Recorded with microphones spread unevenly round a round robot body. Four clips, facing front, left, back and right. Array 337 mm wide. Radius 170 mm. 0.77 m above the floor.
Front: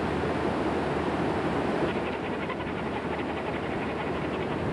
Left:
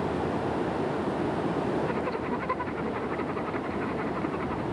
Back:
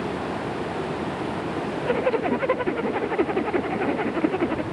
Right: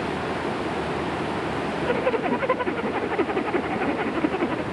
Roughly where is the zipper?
Behind right.